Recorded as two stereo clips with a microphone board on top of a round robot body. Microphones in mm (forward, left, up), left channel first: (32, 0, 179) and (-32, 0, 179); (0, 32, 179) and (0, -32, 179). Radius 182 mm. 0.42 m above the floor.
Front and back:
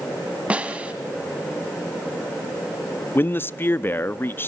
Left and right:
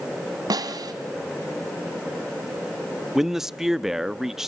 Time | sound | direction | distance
0.5 | a snare drum | 105° right | 1.3 m
3.1 | a man speaking | 10° right | 0.8 m